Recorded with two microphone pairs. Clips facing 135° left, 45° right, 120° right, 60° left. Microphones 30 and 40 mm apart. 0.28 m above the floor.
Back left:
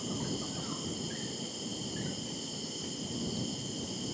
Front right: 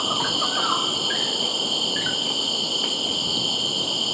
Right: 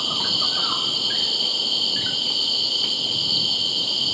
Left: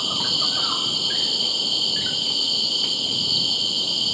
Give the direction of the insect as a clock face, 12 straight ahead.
1 o'clock.